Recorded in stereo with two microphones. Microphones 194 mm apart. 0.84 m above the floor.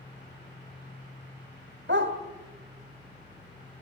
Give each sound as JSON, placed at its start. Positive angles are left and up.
{"t": 1.9, "sound": "a dog barking", "side_deg": -75, "distance_m": 2.0}